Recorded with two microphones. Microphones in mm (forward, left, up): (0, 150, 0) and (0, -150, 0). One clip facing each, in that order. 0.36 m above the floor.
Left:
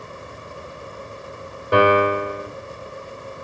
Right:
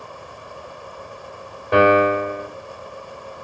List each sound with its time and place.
1.7 s a piano: 15° left (ahead or behind), 1.6 m